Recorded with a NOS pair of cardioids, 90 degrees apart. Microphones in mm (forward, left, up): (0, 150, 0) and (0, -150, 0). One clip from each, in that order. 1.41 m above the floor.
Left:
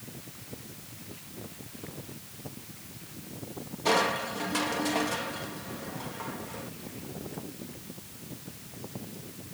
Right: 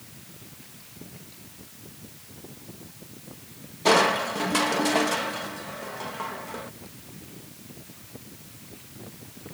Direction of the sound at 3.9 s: 40° right.